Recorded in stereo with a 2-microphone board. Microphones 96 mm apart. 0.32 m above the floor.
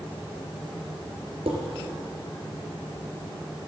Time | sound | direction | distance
1.5 | dishes clattering | 75° right (ahead or behind) | 3.5 m